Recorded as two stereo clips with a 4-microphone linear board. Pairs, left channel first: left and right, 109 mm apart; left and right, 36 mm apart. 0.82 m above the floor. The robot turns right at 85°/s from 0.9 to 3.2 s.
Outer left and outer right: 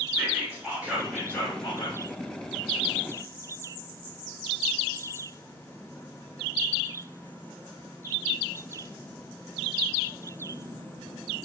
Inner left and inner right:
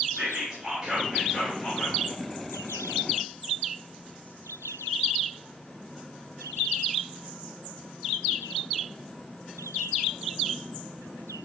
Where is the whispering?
20° right, 1.9 m; by 2.0 s 75° left, 1.9 m.